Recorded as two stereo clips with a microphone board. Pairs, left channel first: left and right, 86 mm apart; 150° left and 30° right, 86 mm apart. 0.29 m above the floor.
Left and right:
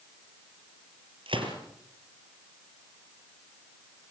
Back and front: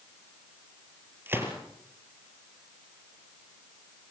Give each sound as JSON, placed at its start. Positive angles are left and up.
{"t": 1.3, "sound": "a gunshot", "azimuth_deg": -95, "distance_m": 4.5}